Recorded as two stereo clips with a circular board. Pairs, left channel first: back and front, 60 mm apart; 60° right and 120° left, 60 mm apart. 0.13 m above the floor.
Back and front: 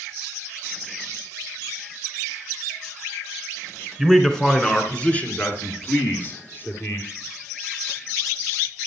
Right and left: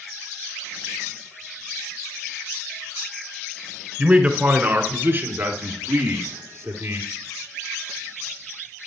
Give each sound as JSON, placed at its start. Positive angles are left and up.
{"t": 4.0, "sound": "a man speaking", "azimuth_deg": 95, "distance_m": 1.7}